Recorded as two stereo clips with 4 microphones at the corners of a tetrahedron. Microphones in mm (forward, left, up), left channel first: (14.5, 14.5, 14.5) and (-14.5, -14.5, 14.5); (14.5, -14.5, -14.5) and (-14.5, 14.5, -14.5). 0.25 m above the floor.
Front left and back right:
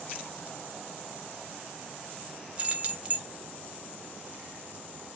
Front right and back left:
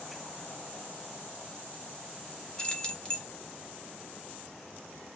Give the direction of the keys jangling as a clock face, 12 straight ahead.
3 o'clock.